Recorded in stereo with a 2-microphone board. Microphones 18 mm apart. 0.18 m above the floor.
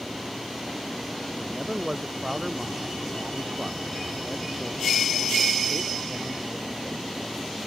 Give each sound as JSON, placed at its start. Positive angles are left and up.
{"t": 1.4, "sound": "a man speaking", "side_deg": -25}